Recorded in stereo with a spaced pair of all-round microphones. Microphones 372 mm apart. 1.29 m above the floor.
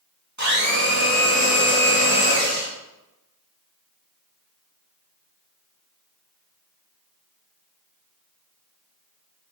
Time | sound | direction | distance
0.4 | a blender | 45° right (ahead or behind) | 2.5 m